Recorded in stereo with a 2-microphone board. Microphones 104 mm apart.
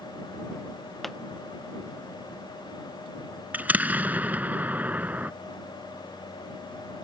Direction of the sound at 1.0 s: Centre (ahead or behind).